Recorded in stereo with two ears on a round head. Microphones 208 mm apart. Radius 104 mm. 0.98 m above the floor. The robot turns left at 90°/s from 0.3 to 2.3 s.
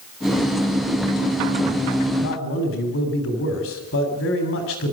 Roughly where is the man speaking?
Left.